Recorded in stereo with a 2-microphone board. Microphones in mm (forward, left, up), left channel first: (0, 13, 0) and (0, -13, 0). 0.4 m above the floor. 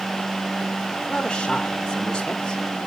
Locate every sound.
1.1 s a man speaking: 25° left (ahead or behind), 1.1 m